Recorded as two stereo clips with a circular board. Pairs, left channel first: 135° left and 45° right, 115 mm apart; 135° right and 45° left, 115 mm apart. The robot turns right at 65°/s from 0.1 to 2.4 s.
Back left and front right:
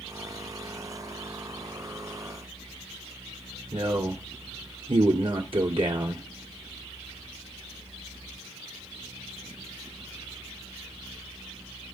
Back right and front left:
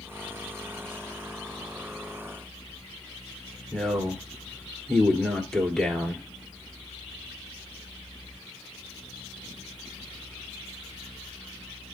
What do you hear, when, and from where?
3.7 s a man speaking: 50° right, 1.8 m